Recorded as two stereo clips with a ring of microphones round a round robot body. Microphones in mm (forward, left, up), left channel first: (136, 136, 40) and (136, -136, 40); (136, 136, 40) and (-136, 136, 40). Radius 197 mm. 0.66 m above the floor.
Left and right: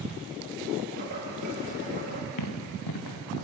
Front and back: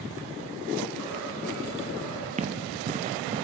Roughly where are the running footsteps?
Behind left.